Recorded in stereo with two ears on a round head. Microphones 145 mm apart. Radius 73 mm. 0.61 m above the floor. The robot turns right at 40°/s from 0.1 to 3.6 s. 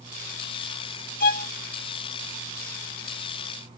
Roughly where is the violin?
Left.